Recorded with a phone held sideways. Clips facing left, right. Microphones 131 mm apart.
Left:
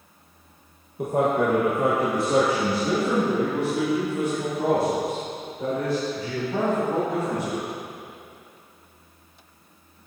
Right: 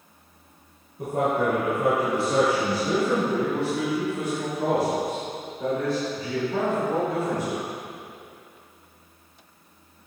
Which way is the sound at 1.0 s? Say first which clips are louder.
Left 2 dB; 80° left.